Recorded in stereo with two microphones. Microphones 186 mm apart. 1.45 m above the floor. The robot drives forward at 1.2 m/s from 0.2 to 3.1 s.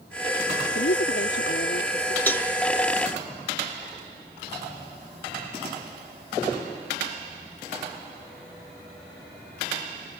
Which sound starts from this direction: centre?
A cowbell, at 2.3 s.